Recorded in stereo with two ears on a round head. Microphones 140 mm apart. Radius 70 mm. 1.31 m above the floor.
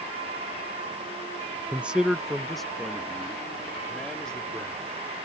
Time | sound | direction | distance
1.7 | a man speaking | 10° right (ahead or behind) | ?